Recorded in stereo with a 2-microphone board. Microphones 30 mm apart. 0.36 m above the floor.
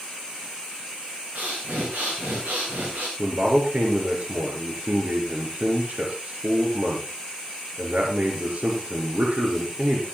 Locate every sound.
1.4 s breathing: 65° right (ahead or behind), 5 m
3.2 s a man speaking: 55° right (ahead or behind), 5 m